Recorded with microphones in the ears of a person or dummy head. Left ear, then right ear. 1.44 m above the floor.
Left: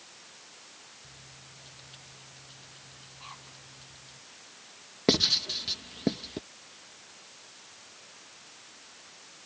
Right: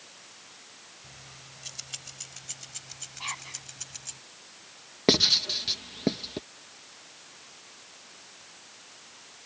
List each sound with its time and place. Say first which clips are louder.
1.0 s keys jangling: right 3 dB; 60° right (ahead or behind)
3.2 s whispering: right 11 dB; 65° right (ahead or behind)
5.1 s writing: right 3 dB; 15° right (ahead or behind)